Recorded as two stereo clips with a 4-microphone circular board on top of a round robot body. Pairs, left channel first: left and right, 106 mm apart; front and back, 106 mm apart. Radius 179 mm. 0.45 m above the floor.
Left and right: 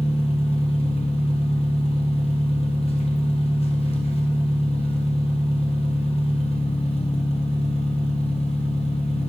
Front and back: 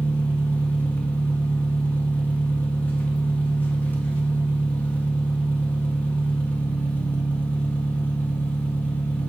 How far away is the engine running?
About 1.2 m.